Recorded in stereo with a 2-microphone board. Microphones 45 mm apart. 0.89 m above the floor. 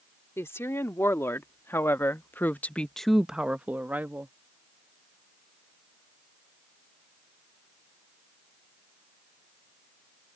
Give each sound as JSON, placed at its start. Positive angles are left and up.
{"t": 0.4, "sound": "a woman speaking", "side_deg": 80}